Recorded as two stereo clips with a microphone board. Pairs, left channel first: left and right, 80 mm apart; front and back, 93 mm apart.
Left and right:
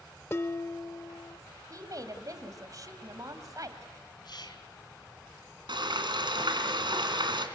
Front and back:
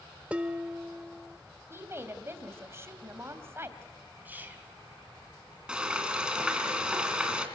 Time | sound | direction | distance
0.3 | dishes clattering | 115° left | 0.7 m
1.7 | a woman speaking | 120° right | 2.5 m
4.2 | whispering | 110° left | 4 m
5.7 | frying | 100° right | 3 m